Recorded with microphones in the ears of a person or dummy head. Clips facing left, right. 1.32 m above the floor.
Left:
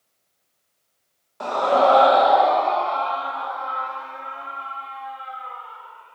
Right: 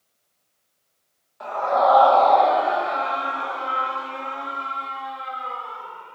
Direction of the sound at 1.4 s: 55° left (ahead or behind).